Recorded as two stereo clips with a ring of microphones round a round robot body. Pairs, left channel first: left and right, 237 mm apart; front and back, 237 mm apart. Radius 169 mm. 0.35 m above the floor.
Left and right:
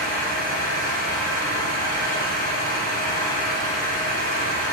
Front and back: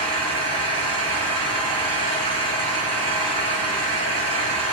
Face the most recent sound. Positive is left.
turn(degrees=160)